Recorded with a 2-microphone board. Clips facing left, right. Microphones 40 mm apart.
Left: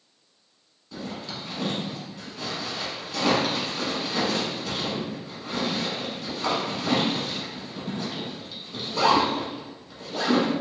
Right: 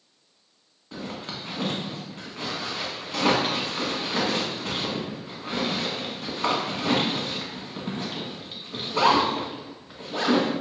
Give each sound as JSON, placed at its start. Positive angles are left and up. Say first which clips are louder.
{"t": 0.9, "sound": "a zipper", "louder": "even", "side_deg": -35, "distance_m": 1.2}